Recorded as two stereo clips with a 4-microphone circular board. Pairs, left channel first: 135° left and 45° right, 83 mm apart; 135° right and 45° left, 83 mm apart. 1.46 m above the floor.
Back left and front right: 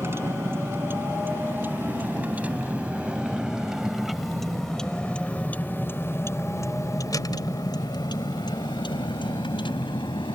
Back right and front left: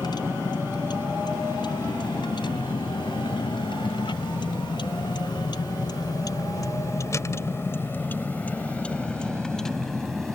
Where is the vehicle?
105° right; by 10.4 s 135° left.